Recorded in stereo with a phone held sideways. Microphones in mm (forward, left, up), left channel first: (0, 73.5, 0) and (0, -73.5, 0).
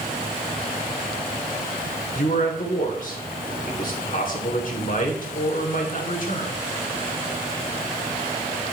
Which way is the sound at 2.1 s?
60° left (ahead or behind).